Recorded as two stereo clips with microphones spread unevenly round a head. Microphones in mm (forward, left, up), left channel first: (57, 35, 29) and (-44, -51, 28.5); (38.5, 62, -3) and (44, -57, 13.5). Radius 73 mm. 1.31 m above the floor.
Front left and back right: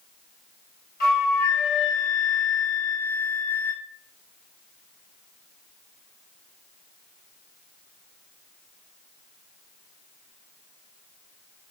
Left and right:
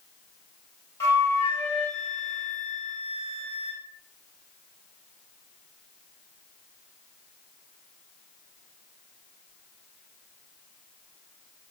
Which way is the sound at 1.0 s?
30° left.